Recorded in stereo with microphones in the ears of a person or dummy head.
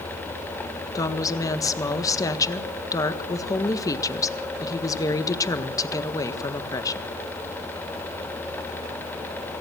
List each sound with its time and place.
0.9 s a woman speaking: 20° left (ahead or behind), 1.6 m